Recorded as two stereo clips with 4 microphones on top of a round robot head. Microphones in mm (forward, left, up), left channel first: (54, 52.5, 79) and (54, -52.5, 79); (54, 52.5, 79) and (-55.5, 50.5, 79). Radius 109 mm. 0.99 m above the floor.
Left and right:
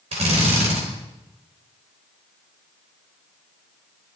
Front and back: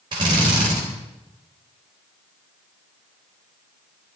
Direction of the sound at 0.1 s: 125° right.